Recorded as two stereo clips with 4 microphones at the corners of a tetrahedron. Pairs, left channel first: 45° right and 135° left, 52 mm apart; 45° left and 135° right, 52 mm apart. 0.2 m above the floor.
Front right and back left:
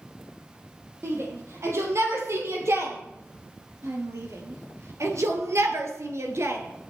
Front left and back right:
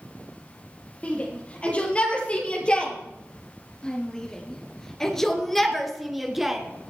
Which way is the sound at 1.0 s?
110° left.